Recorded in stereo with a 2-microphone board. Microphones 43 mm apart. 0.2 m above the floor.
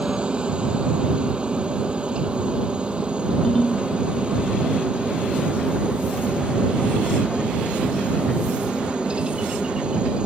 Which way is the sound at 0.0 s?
25° right (ahead or behind).